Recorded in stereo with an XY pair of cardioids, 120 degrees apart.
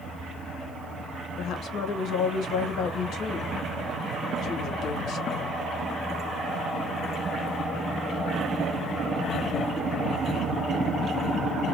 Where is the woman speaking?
65° left, 1.2 m.